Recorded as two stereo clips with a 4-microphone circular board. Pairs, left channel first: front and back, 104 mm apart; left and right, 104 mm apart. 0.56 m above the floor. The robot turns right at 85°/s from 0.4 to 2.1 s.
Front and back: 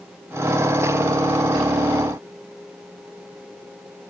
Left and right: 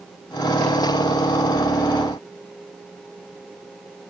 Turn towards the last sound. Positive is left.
No sound to turn to.